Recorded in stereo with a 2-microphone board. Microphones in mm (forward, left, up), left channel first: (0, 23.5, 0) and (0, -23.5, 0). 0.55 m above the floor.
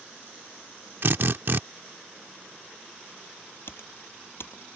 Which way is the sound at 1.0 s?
50° right (ahead or behind).